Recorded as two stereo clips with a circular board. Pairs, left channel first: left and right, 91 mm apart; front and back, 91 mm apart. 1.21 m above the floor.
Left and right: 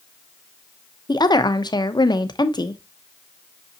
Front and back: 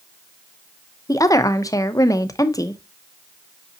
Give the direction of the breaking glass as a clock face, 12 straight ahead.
No breaking glass in this recording.